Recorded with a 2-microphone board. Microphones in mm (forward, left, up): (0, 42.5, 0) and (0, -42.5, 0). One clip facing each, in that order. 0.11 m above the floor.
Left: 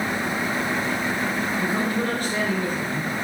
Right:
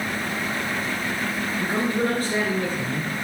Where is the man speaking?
35° right (ahead or behind), 2 m.